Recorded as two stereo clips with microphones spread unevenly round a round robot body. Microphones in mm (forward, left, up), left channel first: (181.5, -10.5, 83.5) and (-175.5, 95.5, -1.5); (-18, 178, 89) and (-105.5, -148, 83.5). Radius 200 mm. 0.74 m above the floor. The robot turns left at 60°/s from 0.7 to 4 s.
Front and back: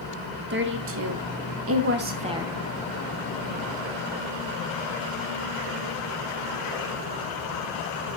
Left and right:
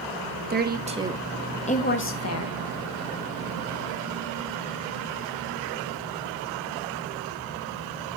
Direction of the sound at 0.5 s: 160° right.